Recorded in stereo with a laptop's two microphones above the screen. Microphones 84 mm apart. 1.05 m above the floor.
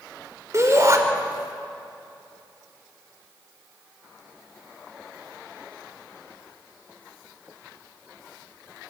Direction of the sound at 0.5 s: 35° right (ahead or behind).